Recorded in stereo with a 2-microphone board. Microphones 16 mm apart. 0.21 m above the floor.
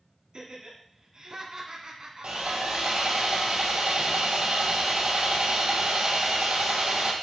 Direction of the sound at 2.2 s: 85° right.